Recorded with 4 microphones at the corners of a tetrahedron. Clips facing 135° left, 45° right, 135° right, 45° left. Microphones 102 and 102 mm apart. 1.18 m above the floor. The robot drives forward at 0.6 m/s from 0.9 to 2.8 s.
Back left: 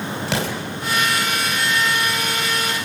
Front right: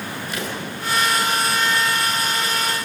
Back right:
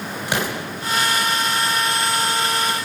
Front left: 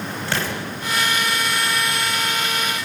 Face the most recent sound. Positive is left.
turn(degrees=155)